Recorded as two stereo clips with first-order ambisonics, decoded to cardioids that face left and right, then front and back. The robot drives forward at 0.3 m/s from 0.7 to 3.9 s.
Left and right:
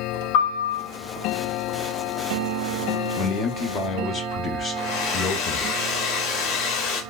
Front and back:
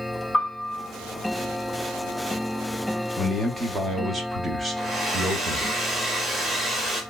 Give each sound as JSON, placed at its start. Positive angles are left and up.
{"t": 0.3, "sound": "a piano", "azimuth_deg": 80, "distance_m": 2.0}
{"t": 3.2, "sound": "a man speaking", "azimuth_deg": 80, "distance_m": 0.6}
{"t": 4.8, "sound": "a hair dryer", "azimuth_deg": 110, "distance_m": 0.7}